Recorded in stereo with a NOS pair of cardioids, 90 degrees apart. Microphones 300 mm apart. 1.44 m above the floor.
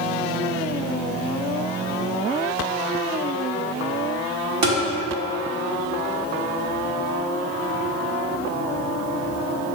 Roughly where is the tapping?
Ahead right.